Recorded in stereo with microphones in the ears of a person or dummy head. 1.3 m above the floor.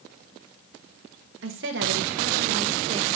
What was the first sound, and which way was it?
A woman speaking, 65° right (ahead or behind).